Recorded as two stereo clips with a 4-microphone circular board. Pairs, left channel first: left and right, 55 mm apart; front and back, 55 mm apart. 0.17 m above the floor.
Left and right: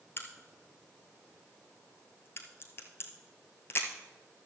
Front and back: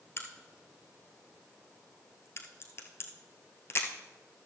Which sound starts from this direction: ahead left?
A crack, at 0.2 s.